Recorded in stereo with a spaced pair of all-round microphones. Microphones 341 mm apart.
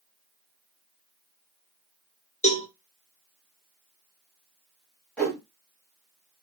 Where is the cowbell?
20° left (ahead or behind), 0.6 m.